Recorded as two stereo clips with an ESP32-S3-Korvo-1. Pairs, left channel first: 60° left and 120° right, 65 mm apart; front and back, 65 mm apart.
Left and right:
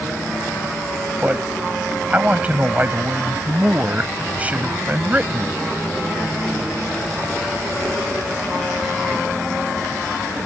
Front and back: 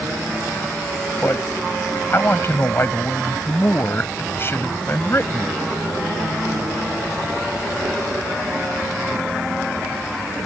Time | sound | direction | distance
1.2 | a man speaking | 55° right | ?